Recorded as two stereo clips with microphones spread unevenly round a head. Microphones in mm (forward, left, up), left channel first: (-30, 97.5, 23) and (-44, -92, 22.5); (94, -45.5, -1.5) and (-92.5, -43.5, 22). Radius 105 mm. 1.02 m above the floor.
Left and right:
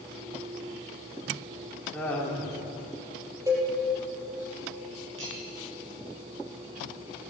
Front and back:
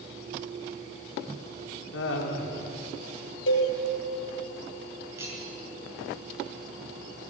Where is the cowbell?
20° right, 5 m.